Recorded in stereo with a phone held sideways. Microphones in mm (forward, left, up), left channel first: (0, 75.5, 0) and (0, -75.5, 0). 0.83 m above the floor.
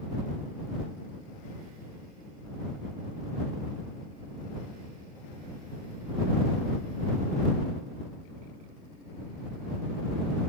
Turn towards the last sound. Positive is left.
No sound to turn to.